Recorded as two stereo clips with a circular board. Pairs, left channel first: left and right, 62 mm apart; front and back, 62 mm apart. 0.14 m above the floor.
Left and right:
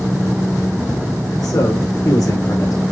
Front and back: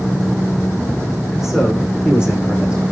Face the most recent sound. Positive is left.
turn(degrees=110)